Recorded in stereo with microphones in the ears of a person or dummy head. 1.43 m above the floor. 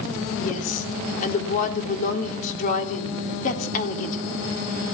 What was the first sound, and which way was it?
A woman speaking, 40° left (ahead or behind).